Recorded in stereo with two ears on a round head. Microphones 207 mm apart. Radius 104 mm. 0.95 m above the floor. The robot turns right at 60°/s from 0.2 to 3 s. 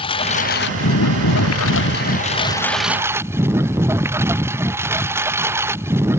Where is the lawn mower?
25° left; by 6.2 s 170° right.